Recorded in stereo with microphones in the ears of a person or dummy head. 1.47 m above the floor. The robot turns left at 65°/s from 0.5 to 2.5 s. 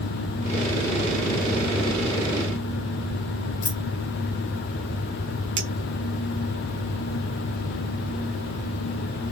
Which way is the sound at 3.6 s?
65° left (ahead or behind).